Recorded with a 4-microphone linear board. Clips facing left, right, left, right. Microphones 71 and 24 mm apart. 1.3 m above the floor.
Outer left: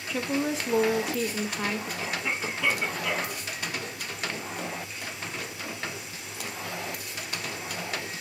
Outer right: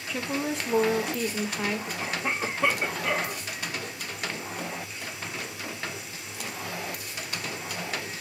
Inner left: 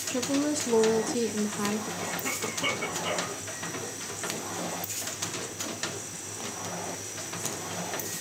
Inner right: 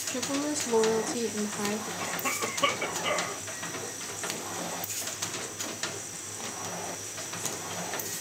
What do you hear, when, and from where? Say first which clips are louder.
0.1 s a woman speaking: outer left 2 dB, inner left 3 dB; centre (ahead or behind), 0.7 m
2.0 s a cough: outer right 3 dB, inner right 1 dB; 40° right (ahead or behind), 1.8 m